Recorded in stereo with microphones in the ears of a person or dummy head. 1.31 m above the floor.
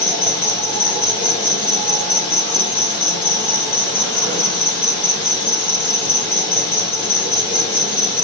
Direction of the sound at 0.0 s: 50° left (ahead or behind).